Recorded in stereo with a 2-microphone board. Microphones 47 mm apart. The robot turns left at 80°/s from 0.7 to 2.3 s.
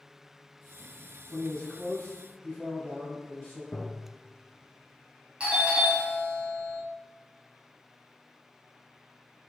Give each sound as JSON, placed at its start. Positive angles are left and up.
{"t": 1.3, "sound": "a man speaking", "side_deg": 10, "distance_m": 1.2}
{"t": 3.7, "sound": "tapping", "side_deg": 25, "distance_m": 0.7}
{"t": 5.4, "sound": "a doorbell", "side_deg": -25, "distance_m": 1.6}